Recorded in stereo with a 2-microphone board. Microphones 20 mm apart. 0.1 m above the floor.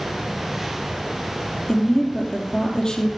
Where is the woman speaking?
35° left (ahead or behind), 4 m.